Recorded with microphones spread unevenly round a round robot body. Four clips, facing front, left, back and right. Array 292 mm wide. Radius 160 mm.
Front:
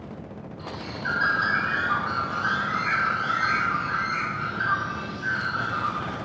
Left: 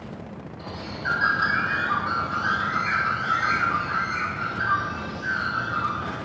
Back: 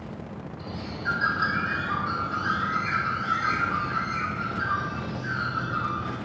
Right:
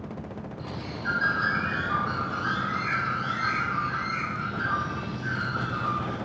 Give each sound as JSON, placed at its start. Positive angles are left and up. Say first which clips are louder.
{"t": 0.6, "sound": "a bird", "louder": "left 3 dB, front 1 dB", "azimuth_deg": -155, "distance_m": 2.5}